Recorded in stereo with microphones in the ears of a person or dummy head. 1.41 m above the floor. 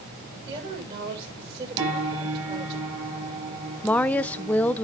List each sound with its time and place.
0.5 s a woman speaking: 30° right (ahead or behind), 6.5 m
1.8 s a piano: 35° right (ahead or behind), 6 m
3.8 s a woman speaking: 10° left (ahead or behind), 0.6 m